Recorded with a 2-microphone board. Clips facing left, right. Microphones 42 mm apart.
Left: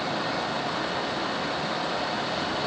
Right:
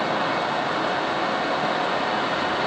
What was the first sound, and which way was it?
Only background noise.